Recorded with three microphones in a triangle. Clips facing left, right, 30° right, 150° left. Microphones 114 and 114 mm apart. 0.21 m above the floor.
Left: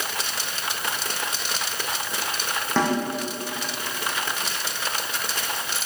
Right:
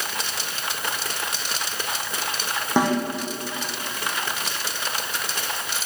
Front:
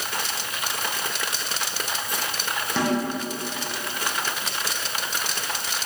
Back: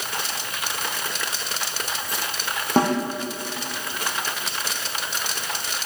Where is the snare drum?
165° right, 4 m.